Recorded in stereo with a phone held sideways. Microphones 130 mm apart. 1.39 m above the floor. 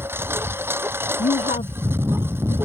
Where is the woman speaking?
75° left (ahead or behind).